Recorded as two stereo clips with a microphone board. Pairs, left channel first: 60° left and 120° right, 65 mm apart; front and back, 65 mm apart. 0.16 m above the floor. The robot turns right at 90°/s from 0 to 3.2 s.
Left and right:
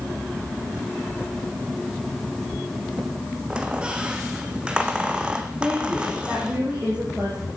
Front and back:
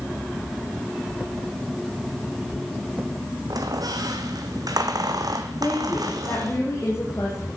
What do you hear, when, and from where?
3.5 s a squeak: 165° left, 1.4 m
5.6 s a woman speaking: 50° right, 4.5 m